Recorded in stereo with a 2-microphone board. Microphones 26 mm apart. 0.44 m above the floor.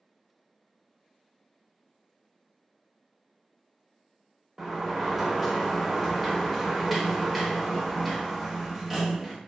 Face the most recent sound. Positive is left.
turn(degrees=-5)  # may be behind; listen again after turning